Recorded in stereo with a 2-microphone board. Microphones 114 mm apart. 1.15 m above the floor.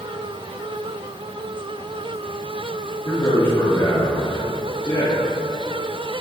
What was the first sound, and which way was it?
A man speaking, 35° left (ahead or behind).